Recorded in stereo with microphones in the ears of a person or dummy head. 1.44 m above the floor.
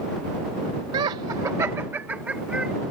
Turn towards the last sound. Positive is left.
turn(degrees=-5)  # may be behind; listen again after turning